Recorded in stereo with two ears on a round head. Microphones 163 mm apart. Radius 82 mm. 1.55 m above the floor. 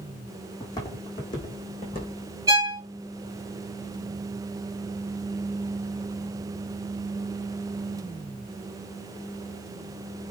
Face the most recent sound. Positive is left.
turn(degrees=-15)  # may be behind; listen again after turning